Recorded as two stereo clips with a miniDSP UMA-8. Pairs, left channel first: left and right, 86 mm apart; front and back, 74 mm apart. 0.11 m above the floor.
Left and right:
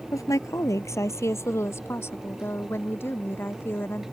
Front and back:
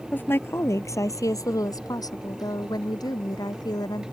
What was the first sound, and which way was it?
A woman speaking, 55° left.